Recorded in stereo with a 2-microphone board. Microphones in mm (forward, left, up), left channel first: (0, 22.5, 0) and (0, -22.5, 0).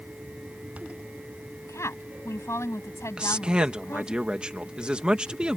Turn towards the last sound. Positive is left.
turn(degrees=-20)  # may be behind; listen again after turning